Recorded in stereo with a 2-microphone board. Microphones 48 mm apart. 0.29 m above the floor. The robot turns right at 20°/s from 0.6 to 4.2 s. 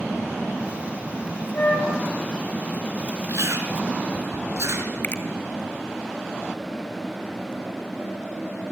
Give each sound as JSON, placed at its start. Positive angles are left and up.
{"t": 1.5, "sound": "a flute", "side_deg": 50, "distance_m": 5.5}
{"t": 3.3, "sound": "chewing", "side_deg": -70, "distance_m": 4.5}
{"t": 5.0, "sound": "a finger snap", "side_deg": 40, "distance_m": 1.7}